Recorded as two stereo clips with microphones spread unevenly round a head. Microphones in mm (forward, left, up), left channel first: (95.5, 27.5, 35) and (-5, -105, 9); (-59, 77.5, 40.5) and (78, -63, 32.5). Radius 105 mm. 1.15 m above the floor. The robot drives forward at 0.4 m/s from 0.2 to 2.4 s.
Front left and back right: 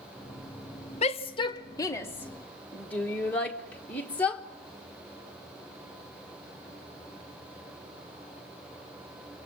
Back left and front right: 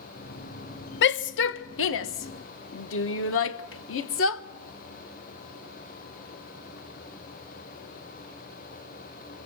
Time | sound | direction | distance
1.0 | a shout | 110° left | 0.9 m